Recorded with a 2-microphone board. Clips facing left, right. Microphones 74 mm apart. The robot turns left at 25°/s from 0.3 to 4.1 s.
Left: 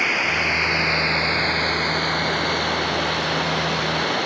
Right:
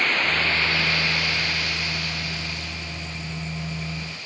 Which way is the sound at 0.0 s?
170° left.